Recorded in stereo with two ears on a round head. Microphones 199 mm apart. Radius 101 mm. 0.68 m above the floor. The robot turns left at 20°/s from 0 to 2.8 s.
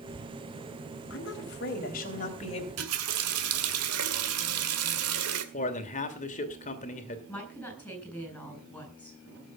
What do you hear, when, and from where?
1.1 s a woman speaking: 60° left, 3.5 m; by 2.7 s 25° left, 3.5 m
2.8 s a running tap: 75° right (ahead or behind), 1.9 m
5.5 s a man speaking: 35° left (ahead or behind), 2.5 m
7.3 s a woman speaking: 10° left (ahead or behind), 8 m